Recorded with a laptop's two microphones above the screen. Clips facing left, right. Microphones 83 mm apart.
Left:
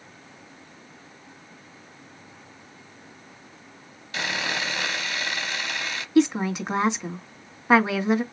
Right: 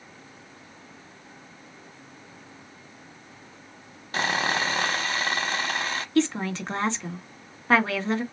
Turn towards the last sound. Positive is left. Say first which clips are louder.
# left 4 dB
turn(degrees=15)  # may be behind; listen again after turning